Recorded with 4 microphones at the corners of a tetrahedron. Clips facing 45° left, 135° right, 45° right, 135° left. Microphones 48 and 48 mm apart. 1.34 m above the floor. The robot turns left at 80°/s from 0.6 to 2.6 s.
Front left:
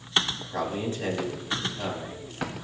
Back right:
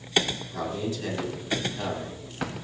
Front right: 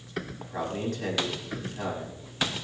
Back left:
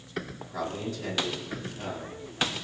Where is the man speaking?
10° left, 9 m; by 2.6 s 150° right, 9 m.